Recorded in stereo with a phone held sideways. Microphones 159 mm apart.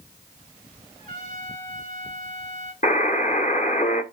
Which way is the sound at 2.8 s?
50° left (ahead or behind).